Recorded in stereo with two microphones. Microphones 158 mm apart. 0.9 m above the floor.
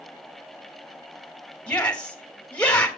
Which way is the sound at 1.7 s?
10° left (ahead or behind).